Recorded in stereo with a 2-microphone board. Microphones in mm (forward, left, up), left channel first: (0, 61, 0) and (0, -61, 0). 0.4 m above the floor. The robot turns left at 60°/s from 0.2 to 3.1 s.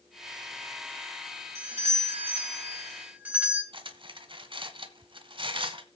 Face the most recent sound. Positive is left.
turn(degrees=-45)  # may be behind; listen again after turning